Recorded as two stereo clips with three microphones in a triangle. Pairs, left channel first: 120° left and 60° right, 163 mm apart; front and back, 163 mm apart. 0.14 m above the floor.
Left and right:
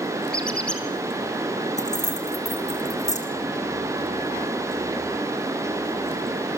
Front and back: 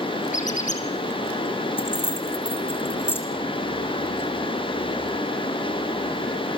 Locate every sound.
0.3 s a squeak: 35° left, 4.5 m
1.8 s keys jangling: 75° left, 5 m